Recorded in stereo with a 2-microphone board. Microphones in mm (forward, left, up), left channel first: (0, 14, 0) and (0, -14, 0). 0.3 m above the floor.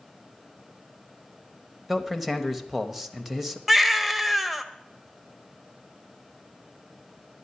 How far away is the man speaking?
About 1.0 m.